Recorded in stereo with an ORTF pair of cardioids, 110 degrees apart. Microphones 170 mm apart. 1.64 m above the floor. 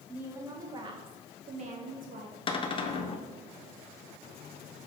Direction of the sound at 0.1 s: 10° right.